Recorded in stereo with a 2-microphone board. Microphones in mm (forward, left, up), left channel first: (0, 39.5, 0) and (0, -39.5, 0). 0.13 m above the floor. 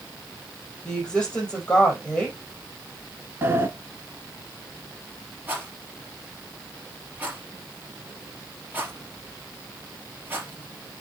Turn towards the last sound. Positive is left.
turn(degrees=-25)  # may be behind; listen again after turning